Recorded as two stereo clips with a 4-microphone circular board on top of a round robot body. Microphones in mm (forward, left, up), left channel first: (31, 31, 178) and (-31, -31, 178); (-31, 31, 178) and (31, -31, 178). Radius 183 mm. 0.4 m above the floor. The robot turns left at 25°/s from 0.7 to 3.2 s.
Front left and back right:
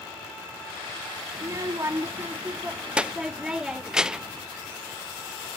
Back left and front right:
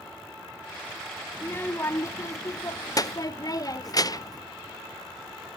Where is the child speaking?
170° right, 0.8 m; by 4.4 s 145° left, 0.8 m.